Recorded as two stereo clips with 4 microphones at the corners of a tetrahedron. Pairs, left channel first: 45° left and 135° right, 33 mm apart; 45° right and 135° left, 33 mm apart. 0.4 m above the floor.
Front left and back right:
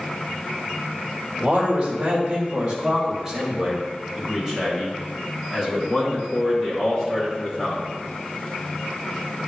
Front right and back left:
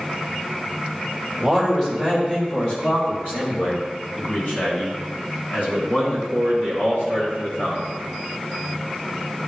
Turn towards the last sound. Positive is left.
turn(degrees=-35)